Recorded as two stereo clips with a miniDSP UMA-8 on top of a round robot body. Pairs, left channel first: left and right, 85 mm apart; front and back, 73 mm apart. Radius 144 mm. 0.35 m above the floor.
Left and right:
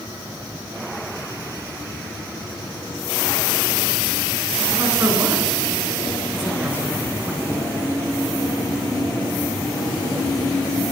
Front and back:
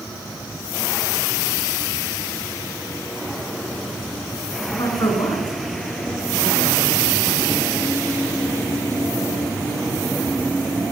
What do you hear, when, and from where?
4.7 s a woman speaking: 30° right, 7 m; by 7.9 s 15° right, 7 m